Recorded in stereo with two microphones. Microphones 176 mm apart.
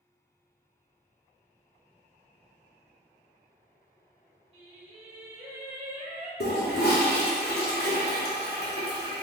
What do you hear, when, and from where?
4.5 s singing: 35° right (ahead or behind), 1.2 m
6.4 s a toilet flushing: 65° left (ahead or behind), 0.8 m